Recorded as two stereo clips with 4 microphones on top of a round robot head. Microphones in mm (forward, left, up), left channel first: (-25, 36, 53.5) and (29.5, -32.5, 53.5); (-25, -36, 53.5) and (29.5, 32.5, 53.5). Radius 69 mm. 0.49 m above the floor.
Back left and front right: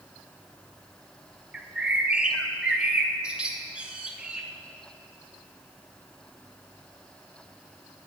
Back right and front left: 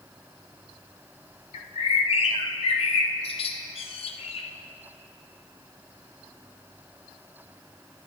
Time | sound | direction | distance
1.5 | a bird | 130° right | 0.7 m